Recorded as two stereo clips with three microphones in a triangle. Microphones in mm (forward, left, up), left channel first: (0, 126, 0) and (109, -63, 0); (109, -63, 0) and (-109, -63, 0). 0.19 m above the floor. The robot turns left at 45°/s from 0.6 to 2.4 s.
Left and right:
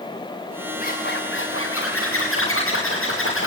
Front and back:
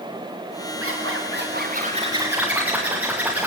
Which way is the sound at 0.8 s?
170° left.